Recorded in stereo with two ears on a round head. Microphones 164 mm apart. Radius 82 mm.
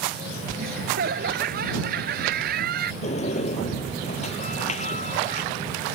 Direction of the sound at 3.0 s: 40° left (ahead or behind).